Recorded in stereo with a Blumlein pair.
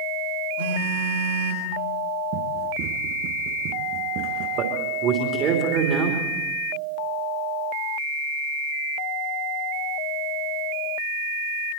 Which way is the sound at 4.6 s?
35° right.